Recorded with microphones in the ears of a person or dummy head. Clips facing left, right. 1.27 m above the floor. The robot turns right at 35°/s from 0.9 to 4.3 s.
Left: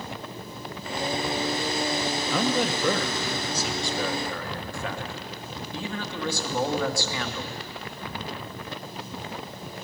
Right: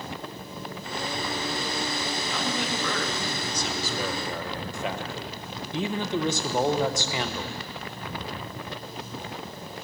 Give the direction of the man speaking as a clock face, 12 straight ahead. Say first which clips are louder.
Left 7 dB; 8 o'clock.